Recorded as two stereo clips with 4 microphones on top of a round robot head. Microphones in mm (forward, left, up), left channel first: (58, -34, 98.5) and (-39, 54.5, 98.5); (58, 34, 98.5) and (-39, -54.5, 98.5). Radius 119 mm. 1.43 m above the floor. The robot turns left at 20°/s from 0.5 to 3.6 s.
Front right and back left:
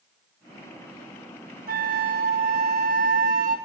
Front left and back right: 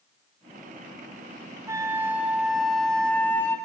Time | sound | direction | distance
1.7 | a flute | 155° left | 0.7 m